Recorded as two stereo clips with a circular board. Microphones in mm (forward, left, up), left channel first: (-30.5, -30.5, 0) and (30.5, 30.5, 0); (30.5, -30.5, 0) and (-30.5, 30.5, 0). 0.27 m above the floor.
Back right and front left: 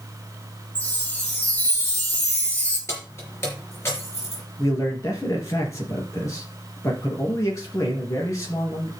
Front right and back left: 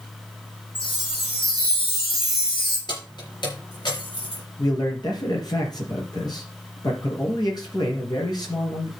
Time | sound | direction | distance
0.8 | a chime | 65° right | 5 m
2.9 | keys jangling | 75° right | 4 m
4.6 | a man speaking | 80° right | 4 m